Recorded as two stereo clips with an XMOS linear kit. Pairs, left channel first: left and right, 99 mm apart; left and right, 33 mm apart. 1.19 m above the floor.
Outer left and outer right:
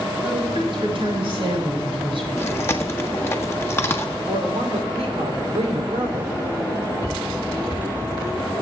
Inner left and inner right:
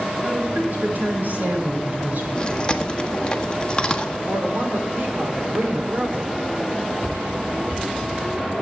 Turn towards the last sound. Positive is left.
turn(degrees=-90)